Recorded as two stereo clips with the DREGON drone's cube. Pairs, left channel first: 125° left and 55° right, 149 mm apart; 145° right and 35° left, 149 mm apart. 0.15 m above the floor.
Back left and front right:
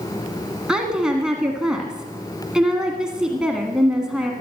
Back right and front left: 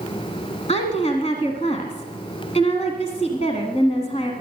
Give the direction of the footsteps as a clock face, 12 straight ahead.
I don't hear footsteps.